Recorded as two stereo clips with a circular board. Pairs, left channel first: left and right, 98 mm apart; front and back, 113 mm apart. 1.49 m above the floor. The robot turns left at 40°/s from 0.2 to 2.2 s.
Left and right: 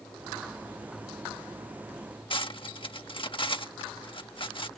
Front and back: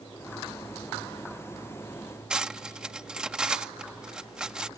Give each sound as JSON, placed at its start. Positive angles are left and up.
{"t": 2.3, "sound": "cutlery clinking", "azimuth_deg": 100}